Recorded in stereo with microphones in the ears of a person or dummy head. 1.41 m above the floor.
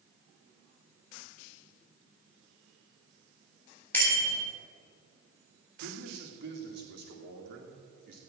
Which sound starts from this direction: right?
A man speaking, at 5.8 s.